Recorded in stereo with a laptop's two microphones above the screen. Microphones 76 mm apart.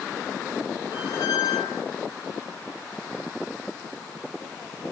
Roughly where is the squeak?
Left.